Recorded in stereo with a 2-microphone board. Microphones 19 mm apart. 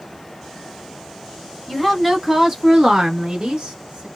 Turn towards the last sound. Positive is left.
turn(degrees=-50)  # may be behind; listen again after turning